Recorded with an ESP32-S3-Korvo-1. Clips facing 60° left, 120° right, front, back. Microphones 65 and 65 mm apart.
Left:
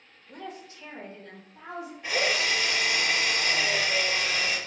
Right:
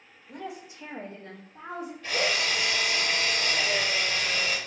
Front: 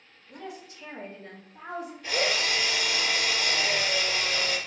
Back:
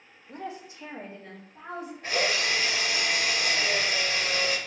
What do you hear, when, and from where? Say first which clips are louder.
0.3 s a woman speaking: right 2 dB, back 3 dB; 155° left, 0.6 m; by 1.9 s 70° right, 0.9 m
2.0 s a drill: left 1 dB, back 1 dB; 130° left, 1.5 m